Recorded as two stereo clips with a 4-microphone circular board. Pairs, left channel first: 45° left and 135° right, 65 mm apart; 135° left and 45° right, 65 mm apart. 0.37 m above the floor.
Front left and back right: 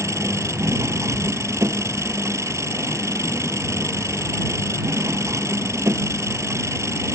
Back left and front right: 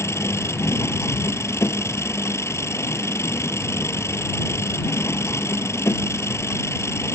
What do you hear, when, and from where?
0.0 s an engine running: straight behind